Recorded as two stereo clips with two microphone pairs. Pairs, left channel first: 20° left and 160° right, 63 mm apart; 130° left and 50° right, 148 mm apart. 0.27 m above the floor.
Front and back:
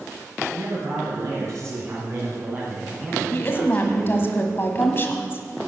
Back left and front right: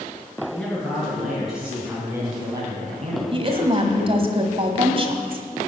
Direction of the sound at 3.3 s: 15° right.